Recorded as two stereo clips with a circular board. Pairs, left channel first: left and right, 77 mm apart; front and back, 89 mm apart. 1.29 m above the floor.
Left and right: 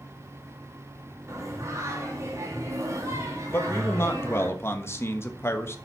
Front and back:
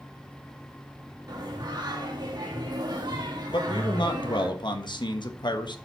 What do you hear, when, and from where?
1.3 s singing: 140° right, 2.5 m
3.5 s a man speaking: 35° left, 1.3 m